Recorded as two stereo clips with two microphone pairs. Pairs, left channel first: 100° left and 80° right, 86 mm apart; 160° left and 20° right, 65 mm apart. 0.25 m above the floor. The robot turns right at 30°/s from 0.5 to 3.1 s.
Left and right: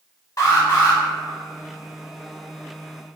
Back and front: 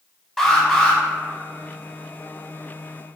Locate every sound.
0.4 s an alarm: 85° left, 0.9 m; by 1.0 s 100° left, 0.9 m